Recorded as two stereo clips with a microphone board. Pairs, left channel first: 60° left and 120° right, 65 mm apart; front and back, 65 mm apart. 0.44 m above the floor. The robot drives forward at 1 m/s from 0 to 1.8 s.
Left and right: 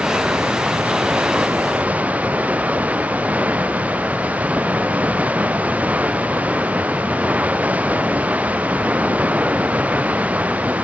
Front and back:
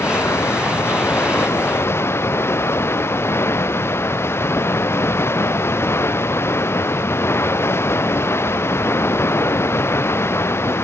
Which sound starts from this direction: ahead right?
Running water, at 0.0 s.